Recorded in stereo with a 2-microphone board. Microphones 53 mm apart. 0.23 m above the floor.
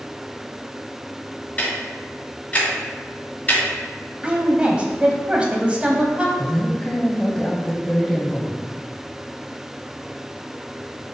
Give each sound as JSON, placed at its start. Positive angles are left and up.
{"t": 1.6, "sound": "ticking", "side_deg": 30, "distance_m": 2.0}
{"t": 4.2, "sound": "a woman speaking", "side_deg": -20, "distance_m": 1.0}
{"t": 6.4, "sound": "a woman speaking", "side_deg": 10, "distance_m": 1.0}